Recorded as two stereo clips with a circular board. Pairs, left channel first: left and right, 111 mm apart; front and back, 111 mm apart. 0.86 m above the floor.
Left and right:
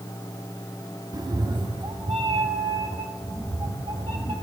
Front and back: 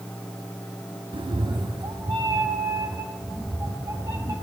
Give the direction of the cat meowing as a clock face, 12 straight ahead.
5 o'clock.